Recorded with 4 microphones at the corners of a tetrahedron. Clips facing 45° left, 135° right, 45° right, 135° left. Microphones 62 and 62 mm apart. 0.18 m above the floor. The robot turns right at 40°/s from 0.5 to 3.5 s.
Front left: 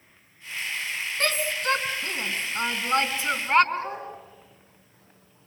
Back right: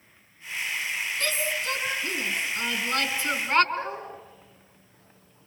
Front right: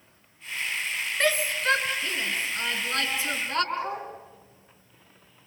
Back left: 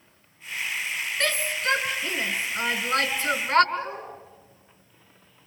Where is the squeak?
No squeak in this recording.